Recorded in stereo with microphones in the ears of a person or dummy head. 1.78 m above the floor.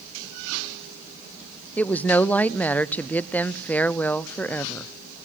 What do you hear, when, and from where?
1.8 s a woman speaking: 10° left (ahead or behind), 0.6 m